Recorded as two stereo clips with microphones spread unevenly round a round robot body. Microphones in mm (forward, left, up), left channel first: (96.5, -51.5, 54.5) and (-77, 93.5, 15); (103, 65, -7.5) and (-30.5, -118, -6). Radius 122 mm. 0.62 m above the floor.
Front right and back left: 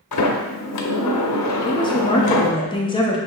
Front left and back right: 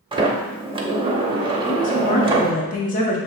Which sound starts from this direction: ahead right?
A sliding door, at 0.1 s.